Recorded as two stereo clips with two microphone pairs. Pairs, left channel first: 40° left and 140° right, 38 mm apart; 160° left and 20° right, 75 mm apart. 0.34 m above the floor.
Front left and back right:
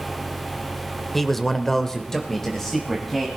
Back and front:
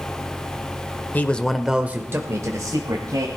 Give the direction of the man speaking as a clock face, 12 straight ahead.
8 o'clock.